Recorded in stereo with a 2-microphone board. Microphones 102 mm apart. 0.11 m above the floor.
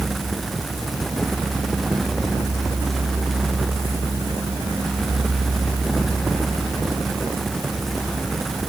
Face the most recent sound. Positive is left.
No sound to turn to.